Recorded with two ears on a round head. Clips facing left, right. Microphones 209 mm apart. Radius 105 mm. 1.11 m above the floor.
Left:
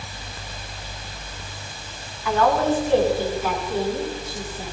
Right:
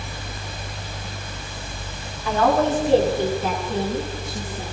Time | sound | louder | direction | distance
2.2 | a woman speaking | right 1 dB | 30° right (ahead or behind) | 9.5 m